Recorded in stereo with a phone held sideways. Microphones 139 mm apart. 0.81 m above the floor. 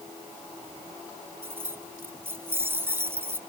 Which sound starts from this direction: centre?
Keys jangling, at 1.4 s.